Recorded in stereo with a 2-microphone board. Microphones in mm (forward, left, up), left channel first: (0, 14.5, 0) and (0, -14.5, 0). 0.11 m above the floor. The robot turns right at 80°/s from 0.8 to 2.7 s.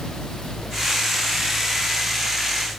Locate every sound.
Only background noise.